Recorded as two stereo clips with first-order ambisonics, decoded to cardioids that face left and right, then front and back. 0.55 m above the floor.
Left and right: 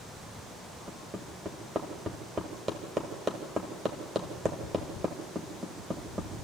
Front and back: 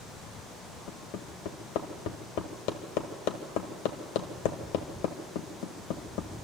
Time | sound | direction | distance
0.9 | hammering | 15° right | 2 m